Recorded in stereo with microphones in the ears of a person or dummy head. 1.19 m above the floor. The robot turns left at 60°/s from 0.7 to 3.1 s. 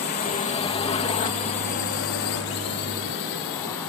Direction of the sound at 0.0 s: 50° left (ahead or behind).